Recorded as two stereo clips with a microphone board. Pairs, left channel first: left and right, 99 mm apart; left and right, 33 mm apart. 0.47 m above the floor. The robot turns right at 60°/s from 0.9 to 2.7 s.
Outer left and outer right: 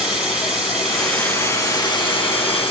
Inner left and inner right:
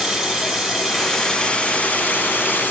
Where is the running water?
5° right, 1.7 m; by 2.7 s 100° left, 1.7 m.